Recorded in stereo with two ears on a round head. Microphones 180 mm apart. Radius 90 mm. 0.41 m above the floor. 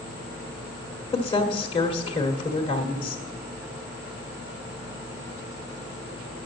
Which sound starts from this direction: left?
A woman speaking, at 1.1 s.